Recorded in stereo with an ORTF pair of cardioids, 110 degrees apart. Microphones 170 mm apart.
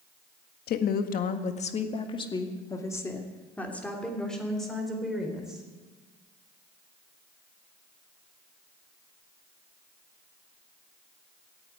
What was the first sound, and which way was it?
A woman speaking, 65° left.